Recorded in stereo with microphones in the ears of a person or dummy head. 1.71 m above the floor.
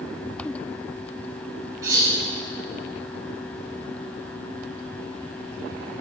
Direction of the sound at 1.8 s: 20° right (ahead or behind).